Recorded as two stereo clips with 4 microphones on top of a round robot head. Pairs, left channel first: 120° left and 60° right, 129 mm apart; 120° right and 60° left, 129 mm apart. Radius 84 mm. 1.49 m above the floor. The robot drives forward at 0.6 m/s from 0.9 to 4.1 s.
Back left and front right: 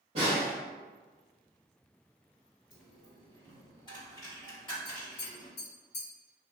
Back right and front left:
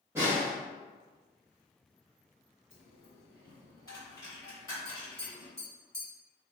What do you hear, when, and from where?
0.1 s a snare drum: 15° right, 2.0 m
2.7 s a dropped coin: 175° left, 1.7 m
4.8 s tapping: 150° left, 1.9 m